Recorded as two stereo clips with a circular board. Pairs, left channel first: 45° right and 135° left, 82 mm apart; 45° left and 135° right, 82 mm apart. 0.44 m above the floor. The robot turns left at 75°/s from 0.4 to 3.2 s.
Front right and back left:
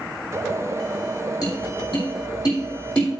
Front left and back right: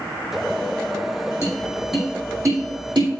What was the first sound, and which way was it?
Tapping, 5° right.